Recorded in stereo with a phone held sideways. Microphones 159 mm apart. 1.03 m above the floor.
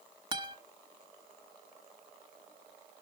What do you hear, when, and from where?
0.3 s a guitar: 30° right (ahead or behind), 0.9 m